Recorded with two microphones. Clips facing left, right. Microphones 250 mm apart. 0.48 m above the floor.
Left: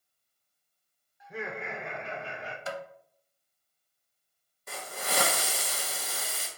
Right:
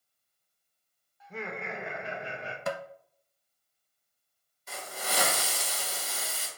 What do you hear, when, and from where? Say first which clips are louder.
1.2 s laughter: left 1 dB; 15° left (ahead or behind), 1.0 m; by 2.6 s 30° right (ahead or behind), 0.8 m
2.7 s tapping: right 4 dB; 65° right (ahead or behind), 0.5 m
4.7 s a hiss: left 1 dB; 55° left (ahead or behind), 1.1 m